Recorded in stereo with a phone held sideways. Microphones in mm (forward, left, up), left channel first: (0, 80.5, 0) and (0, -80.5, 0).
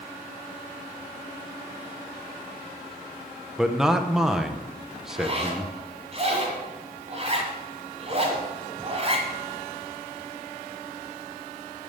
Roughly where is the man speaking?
Centre.